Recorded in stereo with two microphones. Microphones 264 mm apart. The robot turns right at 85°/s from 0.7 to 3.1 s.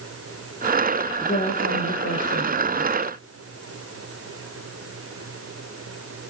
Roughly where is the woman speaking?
Ahead.